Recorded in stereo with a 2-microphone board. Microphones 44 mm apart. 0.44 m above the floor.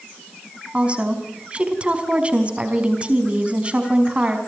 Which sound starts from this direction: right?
A woman speaking, at 0.7 s.